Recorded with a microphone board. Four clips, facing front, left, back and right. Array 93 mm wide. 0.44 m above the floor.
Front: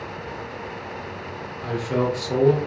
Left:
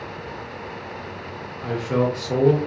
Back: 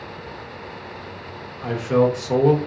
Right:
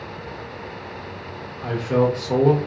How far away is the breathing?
I don't hear breathing.